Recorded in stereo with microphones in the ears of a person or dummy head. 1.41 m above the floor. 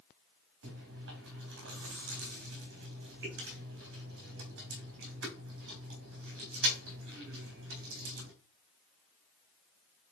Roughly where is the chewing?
Right.